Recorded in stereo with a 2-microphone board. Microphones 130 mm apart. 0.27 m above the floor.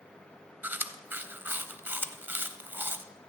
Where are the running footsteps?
No running footsteps in this recording.